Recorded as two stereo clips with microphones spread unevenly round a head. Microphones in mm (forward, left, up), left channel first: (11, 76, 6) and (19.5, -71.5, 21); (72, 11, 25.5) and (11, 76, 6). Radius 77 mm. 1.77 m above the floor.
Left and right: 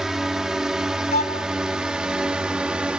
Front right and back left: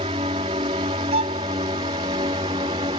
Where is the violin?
145° left.